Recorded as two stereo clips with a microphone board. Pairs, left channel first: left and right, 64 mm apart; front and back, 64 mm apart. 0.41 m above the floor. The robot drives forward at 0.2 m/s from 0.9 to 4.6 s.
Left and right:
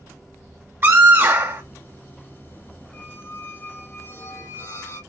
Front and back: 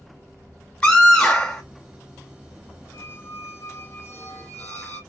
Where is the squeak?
35° left, 0.9 m; by 5.0 s 55° left, 0.6 m.